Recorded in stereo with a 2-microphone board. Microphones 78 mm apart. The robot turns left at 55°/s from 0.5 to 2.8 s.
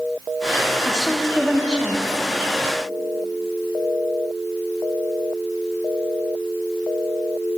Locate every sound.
0.8 s a woman speaking: 10° left (ahead or behind), 0.6 m; by 2.2 s 25° right (ahead or behind), 0.6 m